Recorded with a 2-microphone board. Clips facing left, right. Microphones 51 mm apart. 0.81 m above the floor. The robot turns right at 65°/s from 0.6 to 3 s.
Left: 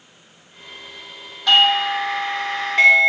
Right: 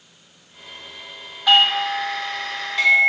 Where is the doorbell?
15° right, 1.4 m; by 3.1 s 85° left, 1.4 m.